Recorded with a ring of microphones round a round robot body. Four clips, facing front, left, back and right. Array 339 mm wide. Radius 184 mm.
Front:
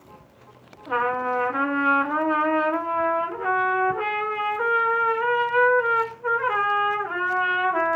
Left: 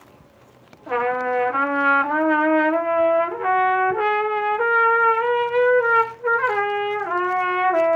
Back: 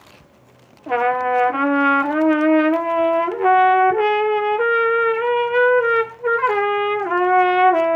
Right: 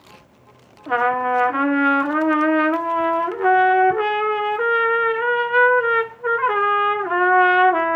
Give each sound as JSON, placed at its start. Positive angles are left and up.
{"t": 0.9, "sound": "a trumpet", "azimuth_deg": -150, "distance_m": 1.1}